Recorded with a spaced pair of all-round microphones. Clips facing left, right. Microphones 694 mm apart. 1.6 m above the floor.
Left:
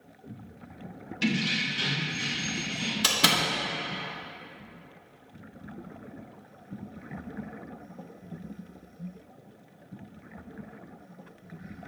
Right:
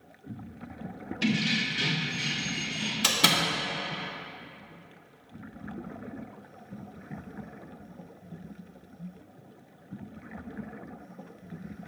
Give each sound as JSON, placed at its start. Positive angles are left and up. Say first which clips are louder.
{"t": 1.2, "sound": "keys jangling", "louder": "right 1 dB", "side_deg": 5, "distance_m": 0.6}
{"t": 3.0, "sound": "a door slam", "louder": "right 1 dB", "side_deg": 0, "distance_m": 0.9}